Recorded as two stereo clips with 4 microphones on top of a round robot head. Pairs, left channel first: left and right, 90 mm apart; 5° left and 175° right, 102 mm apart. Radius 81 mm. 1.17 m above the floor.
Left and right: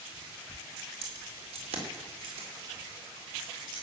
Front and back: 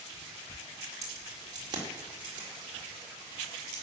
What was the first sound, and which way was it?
Keys jangling, 110° right.